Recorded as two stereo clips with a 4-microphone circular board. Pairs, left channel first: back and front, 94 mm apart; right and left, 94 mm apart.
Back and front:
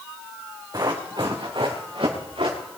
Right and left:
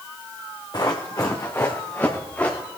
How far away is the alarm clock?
No alarm clock in this recording.